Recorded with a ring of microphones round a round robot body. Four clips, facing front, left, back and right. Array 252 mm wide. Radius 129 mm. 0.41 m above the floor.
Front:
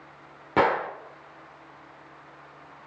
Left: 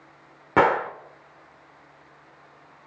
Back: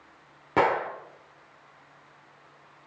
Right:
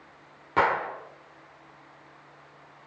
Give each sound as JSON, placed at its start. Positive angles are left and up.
{"t": 0.6, "sound": "a gunshot", "azimuth_deg": 85, "distance_m": 1.5}